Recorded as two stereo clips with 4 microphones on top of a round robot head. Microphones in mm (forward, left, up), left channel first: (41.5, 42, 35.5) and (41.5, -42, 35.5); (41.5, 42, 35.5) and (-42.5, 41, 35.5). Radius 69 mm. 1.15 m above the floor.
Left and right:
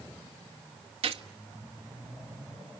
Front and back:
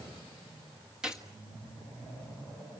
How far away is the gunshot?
About 1.4 m.